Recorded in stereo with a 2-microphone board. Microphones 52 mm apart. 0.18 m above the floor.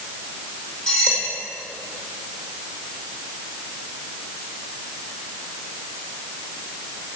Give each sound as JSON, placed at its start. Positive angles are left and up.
{"t": 0.9, "sound": "cutlery clinking", "side_deg": 20, "distance_m": 5.5}